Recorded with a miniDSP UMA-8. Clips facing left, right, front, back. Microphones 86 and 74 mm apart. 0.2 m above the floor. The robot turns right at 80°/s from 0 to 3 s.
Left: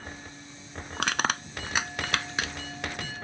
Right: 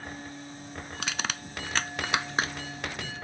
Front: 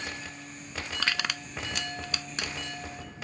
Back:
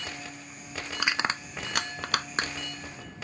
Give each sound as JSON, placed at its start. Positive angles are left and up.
{"t": 1.0, "sound": "crushing", "azimuth_deg": 100}